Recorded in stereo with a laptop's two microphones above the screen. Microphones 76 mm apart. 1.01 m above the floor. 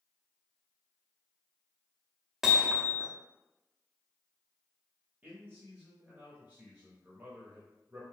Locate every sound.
2.4 s hammering: 5° right (ahead or behind), 0.6 m
5.2 s a man speaking: 25° right (ahead or behind), 0.8 m